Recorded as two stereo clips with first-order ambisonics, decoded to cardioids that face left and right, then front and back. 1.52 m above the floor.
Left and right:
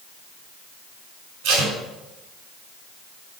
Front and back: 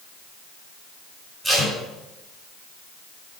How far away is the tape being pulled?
About 3.5 m.